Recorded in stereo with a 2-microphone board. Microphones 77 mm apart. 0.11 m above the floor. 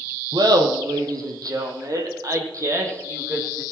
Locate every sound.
0.3 s laughter: 65° right (ahead or behind), 3 m; by 3.6 s 40° right (ahead or behind), 4.5 m